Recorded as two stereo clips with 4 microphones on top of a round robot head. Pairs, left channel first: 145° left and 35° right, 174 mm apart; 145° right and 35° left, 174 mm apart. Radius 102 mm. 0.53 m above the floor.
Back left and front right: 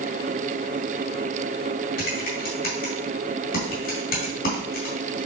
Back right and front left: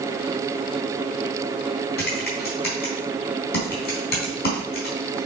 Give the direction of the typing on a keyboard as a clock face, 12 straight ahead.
6 o'clock.